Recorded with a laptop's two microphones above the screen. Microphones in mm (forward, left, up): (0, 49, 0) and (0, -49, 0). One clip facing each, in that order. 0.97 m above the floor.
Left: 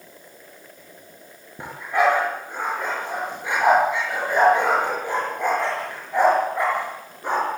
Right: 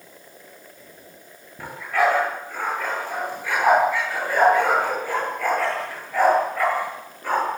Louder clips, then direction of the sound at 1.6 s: Left 1 dB; 20° left (ahead or behind).